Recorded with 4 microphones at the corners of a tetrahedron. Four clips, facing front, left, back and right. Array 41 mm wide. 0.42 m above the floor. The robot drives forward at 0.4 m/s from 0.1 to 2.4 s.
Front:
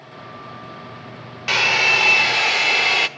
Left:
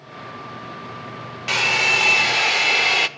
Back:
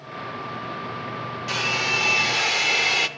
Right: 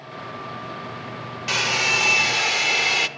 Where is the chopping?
No chopping in this recording.